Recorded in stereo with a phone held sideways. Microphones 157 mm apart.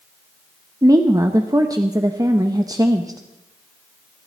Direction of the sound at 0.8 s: 20° right (ahead or behind).